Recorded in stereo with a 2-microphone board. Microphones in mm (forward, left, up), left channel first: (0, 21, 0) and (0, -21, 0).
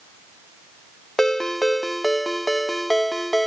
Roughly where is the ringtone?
Centre.